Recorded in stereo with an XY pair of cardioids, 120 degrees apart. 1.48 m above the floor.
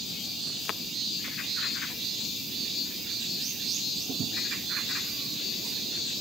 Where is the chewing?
I don't hear chewing.